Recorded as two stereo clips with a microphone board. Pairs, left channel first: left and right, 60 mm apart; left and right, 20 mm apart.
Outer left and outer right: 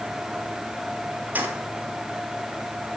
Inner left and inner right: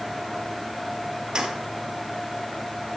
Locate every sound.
1.4 s keys jangling: 30° right (ahead or behind), 1.9 m